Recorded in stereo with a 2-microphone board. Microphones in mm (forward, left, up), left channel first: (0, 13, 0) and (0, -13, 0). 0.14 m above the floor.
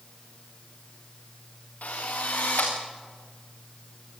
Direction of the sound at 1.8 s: 80° left.